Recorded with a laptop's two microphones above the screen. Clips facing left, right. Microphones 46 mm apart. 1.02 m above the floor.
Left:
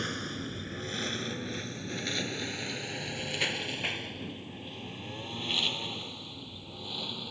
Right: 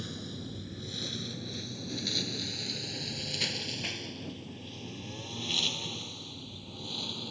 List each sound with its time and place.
0.0 s a lawn mower: 60° left (ahead or behind); by 7.3 s 15° left (ahead or behind)